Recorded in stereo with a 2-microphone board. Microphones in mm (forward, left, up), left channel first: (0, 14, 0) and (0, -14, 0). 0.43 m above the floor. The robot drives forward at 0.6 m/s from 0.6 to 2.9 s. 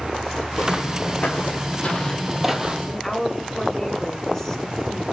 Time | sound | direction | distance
0.6 | footsteps | 80° left | 1.8 m
2.9 | a woman speaking | 20° left (ahead or behind) | 1.3 m